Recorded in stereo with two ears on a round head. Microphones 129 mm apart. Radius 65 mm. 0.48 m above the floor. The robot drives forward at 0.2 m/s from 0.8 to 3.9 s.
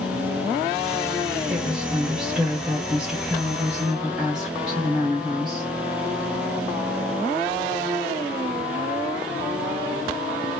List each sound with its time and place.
1.5 s a woman speaking: 5° right (ahead or behind), 0.9 m